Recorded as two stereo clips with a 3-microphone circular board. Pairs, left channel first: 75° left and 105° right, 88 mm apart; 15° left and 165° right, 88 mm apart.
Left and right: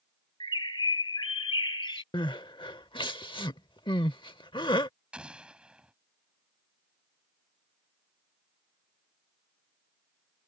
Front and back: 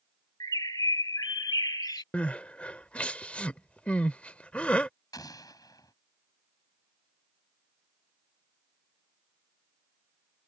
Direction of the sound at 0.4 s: 55° left.